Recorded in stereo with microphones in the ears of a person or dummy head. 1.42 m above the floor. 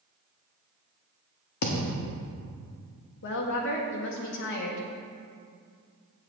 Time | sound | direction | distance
1.6 | a thud | 55° left (ahead or behind) | 1.3 m
3.2 | a woman speaking | 65° left (ahead or behind) | 1.7 m